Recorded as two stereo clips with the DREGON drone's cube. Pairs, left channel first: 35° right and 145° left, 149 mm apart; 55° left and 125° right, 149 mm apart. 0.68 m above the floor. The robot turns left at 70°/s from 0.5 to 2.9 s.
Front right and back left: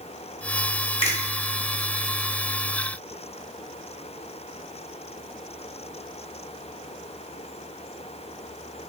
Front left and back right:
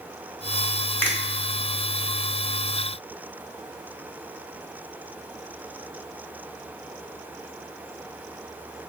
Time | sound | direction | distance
1.0 | a finger snap | 15° right | 0.9 m